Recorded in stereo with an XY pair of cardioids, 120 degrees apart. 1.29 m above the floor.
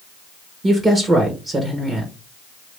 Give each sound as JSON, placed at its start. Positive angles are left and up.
{"t": 0.6, "sound": "a woman speaking", "azimuth_deg": -30, "distance_m": 1.2}